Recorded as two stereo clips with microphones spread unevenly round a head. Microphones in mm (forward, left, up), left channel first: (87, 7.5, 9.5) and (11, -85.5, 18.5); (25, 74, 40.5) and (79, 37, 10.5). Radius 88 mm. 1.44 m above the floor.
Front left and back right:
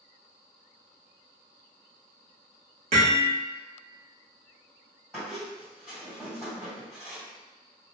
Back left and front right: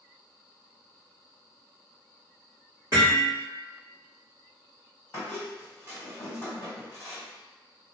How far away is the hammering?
About 1.3 m.